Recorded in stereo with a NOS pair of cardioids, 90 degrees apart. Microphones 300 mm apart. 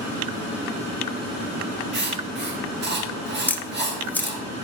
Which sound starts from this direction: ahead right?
Writing, at 1.9 s.